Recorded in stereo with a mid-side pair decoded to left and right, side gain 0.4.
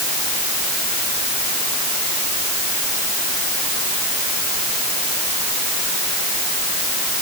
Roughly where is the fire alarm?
No fire alarm in this recording.